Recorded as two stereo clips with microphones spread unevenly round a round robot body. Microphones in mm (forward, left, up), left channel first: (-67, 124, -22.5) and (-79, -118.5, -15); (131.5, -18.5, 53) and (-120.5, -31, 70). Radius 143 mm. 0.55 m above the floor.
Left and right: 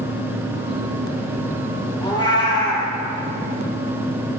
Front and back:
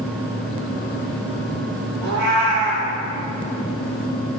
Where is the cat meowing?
160° left, 5 m.